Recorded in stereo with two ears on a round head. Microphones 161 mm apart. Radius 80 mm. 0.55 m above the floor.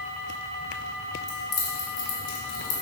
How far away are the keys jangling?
About 2.5 m.